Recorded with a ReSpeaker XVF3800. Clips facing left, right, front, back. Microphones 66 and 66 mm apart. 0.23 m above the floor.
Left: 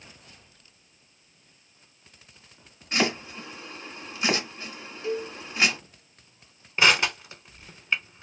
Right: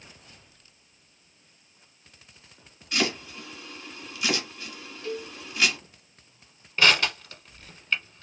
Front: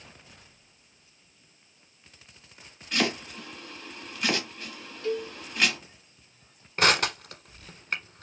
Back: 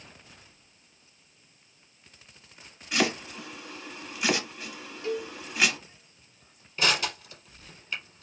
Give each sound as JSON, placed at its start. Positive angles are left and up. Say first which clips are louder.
{"t": 2.9, "sound": "chopping", "louder": "left 2 dB, back 1 dB", "azimuth_deg": 105, "distance_m": 1.2}
{"t": 5.0, "sound": "a cowbell", "louder": "left 4 dB, front 2 dB", "azimuth_deg": 135, "distance_m": 0.8}
{"t": 6.8, "sound": "crushing", "louder": "left 1 dB, front 4 dB", "azimuth_deg": 20, "distance_m": 0.8}